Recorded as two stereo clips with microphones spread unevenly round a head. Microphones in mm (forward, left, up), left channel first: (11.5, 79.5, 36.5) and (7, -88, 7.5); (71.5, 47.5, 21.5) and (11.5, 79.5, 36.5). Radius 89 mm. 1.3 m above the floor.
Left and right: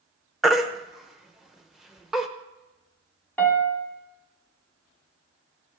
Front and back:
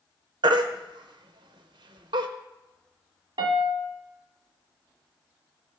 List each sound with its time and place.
0.4 s a baby crying: straight behind, 0.6 m
3.4 s a piano: 170° left, 0.8 m